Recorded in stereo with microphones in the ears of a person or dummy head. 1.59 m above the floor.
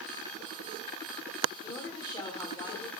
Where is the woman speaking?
20° left (ahead or behind), 1.2 m.